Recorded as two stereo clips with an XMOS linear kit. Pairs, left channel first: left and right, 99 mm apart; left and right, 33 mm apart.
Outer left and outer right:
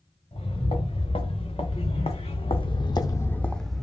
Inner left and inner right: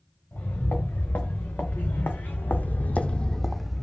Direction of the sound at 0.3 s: 70° left (ahead or behind).